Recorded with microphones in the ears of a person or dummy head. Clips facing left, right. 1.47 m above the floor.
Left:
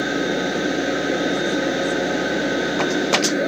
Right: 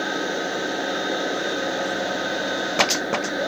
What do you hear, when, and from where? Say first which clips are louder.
0.0 s a machine running: left 5 dB; 35° left (ahead or behind)